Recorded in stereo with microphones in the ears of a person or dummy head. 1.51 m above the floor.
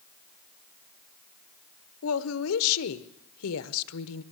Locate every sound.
2.0 s a woman speaking: 85° left, 1.1 m